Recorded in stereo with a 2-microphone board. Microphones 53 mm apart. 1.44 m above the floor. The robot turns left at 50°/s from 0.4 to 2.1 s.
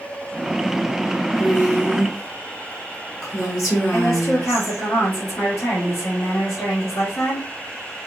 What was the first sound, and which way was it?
A woman speaking, 95° left.